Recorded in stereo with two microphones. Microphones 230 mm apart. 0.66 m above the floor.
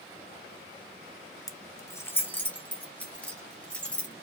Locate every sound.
1.5 s keys jangling: 15° left (ahead or behind), 0.5 m; by 4.1 s 5° left (ahead or behind), 2 m